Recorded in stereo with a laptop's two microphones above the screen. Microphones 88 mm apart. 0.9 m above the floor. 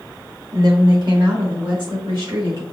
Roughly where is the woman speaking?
Right.